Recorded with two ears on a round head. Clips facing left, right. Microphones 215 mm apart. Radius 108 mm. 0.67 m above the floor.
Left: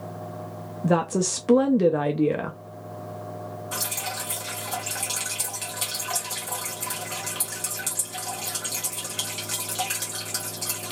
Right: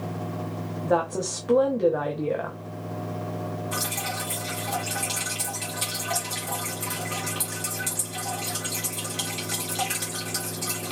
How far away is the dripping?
About 2 m.